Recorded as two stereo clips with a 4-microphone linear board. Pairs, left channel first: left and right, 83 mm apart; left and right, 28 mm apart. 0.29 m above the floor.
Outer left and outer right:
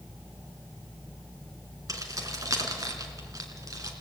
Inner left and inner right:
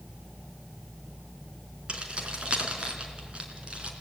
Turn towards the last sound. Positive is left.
turn(degrees=-45)  # may be behind; listen again after turning